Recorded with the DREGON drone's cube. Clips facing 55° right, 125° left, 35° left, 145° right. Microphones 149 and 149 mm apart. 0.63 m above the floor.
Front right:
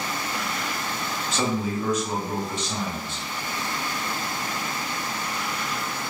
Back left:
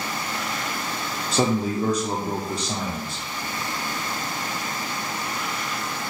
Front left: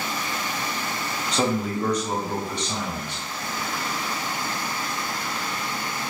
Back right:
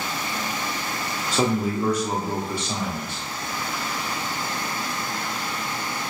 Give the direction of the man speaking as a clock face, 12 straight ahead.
7 o'clock.